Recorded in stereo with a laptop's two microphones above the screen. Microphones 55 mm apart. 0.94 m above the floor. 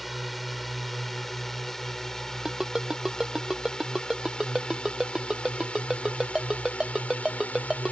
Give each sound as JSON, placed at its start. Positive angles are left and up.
{"t": 0.0, "sound": "a drone", "side_deg": 0}
{"t": 2.5, "sound": "a ringtone", "side_deg": -10}